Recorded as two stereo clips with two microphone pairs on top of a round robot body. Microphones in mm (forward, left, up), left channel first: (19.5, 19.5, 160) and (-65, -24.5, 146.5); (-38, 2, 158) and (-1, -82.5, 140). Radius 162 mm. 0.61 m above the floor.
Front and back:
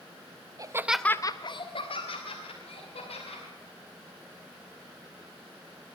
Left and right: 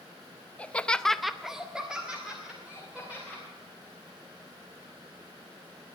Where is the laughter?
160° right, 1.0 m; by 3.4 s 10° left, 4 m.